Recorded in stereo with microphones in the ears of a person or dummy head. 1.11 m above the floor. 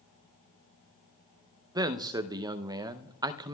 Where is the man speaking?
15° right (ahead or behind), 0.6 m.